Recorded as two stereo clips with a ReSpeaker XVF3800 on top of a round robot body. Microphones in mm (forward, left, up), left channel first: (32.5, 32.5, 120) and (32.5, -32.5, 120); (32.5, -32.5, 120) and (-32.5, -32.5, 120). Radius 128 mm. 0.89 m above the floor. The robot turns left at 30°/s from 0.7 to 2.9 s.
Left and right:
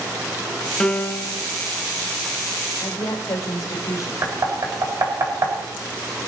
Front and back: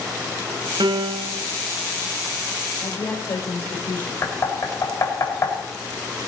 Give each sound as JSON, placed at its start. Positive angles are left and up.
{"t": 0.8, "sound": "a piano", "azimuth_deg": 170, "distance_m": 0.8}
{"t": 2.8, "sound": "a woman speaking", "azimuth_deg": 60, "distance_m": 3.5}
{"t": 4.2, "sound": "knocking", "azimuth_deg": -50, "distance_m": 3.5}